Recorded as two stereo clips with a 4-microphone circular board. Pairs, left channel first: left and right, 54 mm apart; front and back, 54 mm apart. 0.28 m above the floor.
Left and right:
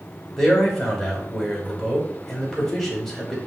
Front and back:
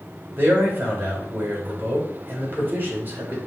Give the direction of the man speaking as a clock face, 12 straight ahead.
6 o'clock.